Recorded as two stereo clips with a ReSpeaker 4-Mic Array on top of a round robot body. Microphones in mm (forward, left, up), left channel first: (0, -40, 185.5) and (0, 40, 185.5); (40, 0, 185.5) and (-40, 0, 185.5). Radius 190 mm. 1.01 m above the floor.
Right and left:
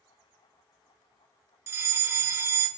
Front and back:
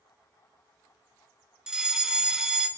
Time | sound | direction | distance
1.7 | a fire alarm | 105° left | 1.4 m